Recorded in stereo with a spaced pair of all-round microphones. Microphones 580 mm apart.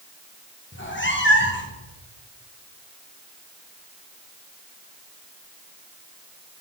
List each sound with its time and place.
0.7 s a cat meowing: 20° left (ahead or behind), 0.8 m